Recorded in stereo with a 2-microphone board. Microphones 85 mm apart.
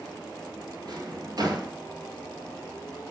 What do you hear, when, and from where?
0.8 s a drawer: 45° right (ahead or behind), 1.9 m